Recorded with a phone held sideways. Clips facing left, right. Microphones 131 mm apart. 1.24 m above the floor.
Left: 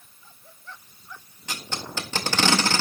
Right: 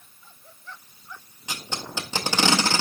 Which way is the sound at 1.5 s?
15° right (ahead or behind).